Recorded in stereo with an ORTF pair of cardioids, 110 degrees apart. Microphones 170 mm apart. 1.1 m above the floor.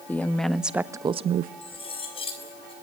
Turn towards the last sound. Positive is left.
turn(degrees=35)